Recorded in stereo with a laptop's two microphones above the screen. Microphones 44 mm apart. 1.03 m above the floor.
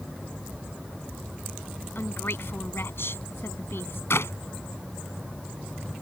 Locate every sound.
1.9 s a woman speaking: 70° left (ahead or behind)
4.1 s a clap: 85° left